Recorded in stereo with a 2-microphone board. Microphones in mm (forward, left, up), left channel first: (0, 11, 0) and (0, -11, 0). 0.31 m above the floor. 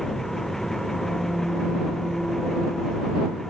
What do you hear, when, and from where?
0.0 s an engine running: 15° left (ahead or behind)